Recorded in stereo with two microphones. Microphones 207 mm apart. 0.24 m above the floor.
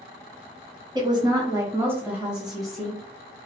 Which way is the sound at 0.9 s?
20° right (ahead or behind).